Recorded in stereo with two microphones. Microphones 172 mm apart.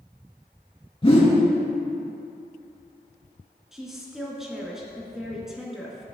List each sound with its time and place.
1.0 s a whoosh: 35° left (ahead or behind), 2.5 m
3.7 s a woman speaking: centre (ahead or behind), 2.0 m